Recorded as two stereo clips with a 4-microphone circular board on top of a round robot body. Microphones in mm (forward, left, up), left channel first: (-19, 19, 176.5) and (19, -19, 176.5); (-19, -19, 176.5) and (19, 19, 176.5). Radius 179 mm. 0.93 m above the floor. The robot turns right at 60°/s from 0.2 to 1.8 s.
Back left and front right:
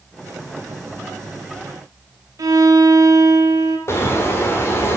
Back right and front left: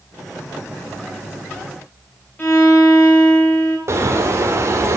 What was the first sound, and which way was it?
A violin, 75° right.